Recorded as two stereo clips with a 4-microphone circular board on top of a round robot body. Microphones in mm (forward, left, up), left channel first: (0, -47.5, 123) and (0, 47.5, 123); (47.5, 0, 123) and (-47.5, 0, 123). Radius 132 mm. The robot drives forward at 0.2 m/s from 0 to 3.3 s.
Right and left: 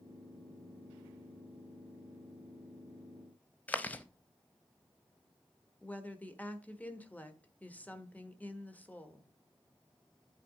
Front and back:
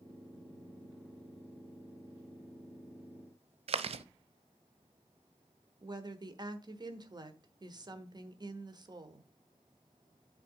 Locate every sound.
3.7 s chewing: 165° right, 0.6 m
5.8 s a woman speaking: 160° right, 1.3 m